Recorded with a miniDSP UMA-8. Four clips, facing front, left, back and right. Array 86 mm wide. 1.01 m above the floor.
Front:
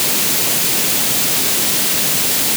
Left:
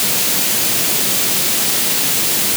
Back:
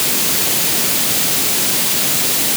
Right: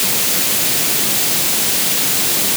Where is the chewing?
I don't hear chewing.